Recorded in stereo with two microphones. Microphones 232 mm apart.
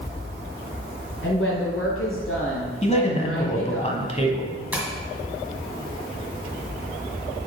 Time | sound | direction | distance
1.2 | a woman speaking | 65° left (ahead or behind) | 2.5 m
2.8 | a man speaking | 30° left (ahead or behind) | 1.1 m
4.7 | tapping | 5° right (ahead or behind) | 1.8 m